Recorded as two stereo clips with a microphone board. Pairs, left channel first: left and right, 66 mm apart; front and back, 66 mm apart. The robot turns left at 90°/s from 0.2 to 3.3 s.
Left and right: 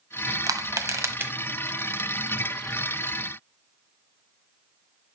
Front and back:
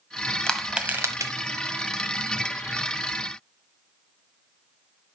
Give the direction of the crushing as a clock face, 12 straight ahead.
3 o'clock.